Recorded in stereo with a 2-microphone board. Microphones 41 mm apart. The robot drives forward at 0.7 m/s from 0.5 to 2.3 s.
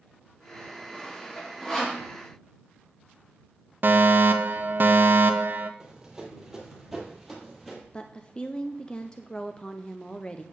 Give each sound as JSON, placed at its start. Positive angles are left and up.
{"t": 0.9, "sound": "sawing", "side_deg": 15, "distance_m": 1.2}
{"t": 3.8, "sound": "a fire alarm", "side_deg": -50, "distance_m": 0.6}
{"t": 5.8, "sound": "running footsteps", "side_deg": -15, "distance_m": 3.0}
{"t": 7.9, "sound": "a woman speaking", "side_deg": 25, "distance_m": 0.5}